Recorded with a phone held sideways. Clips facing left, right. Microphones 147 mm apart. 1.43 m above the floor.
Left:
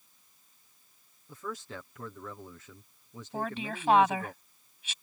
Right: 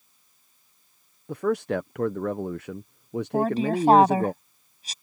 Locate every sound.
1.3 s a man speaking: 70° right (ahead or behind)
3.3 s a woman speaking: 40° right (ahead or behind)